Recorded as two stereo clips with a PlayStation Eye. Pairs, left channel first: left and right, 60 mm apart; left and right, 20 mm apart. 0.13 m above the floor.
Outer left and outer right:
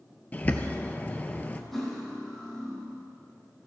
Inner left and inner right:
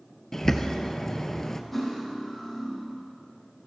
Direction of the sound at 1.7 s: 5° left (ahead or behind).